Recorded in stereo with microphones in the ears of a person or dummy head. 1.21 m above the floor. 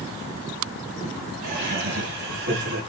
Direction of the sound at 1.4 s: 70° right (ahead or behind).